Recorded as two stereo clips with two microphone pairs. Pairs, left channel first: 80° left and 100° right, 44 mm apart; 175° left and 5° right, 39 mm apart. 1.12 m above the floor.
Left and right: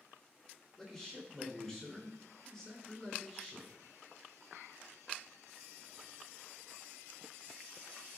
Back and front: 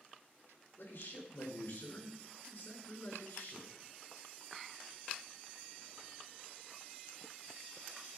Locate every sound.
0.8 s a man speaking: 165° left, 4.5 m